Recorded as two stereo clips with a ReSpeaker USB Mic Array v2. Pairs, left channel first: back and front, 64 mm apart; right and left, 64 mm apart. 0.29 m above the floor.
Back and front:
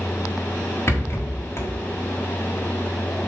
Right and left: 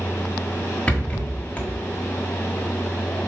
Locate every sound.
0.9 s a rattle: 155° right, 1.4 m